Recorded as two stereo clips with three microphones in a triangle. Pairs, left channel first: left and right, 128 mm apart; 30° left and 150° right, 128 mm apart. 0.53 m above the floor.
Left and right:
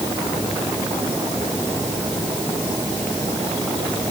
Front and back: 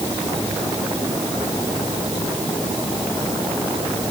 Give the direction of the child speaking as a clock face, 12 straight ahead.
I don't hear a child speaking.